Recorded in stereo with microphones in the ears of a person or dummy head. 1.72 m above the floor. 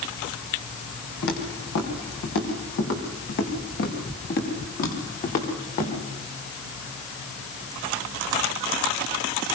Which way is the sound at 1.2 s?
70° left (ahead or behind).